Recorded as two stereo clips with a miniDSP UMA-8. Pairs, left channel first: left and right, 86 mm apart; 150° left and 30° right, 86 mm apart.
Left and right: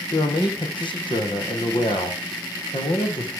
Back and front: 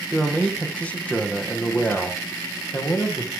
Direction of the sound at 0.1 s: 65° left.